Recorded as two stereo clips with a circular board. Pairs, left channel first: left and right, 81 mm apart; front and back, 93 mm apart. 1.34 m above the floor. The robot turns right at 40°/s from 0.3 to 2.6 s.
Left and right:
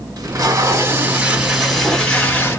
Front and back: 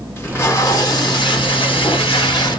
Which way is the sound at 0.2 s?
60° right.